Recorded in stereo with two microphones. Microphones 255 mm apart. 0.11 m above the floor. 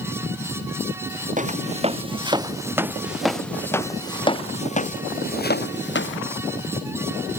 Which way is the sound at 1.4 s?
30° right (ahead or behind).